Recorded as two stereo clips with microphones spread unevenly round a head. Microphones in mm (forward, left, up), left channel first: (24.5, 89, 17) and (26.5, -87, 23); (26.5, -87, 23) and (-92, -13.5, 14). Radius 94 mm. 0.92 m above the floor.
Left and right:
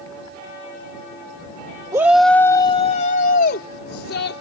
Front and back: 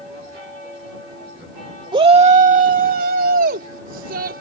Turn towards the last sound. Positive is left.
turn(degrees=120)